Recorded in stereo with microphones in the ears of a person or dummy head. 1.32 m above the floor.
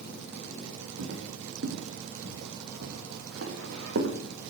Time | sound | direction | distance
1.0 | footsteps | 65° right (ahead or behind) | 3 m